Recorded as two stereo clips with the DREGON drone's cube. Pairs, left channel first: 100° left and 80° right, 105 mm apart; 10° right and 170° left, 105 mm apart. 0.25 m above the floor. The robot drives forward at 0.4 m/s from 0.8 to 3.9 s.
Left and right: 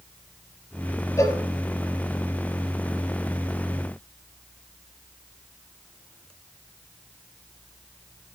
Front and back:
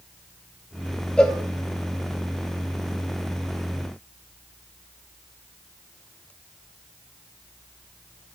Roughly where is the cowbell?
Ahead left.